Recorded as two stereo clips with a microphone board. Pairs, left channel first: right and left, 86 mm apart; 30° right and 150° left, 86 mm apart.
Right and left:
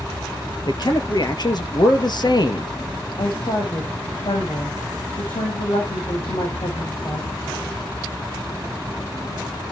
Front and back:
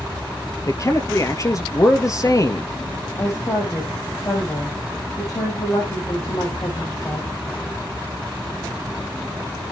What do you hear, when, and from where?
0.7 s a man speaking: 75° right, 2 m
3.2 s a woman speaking: 80° right, 7.5 m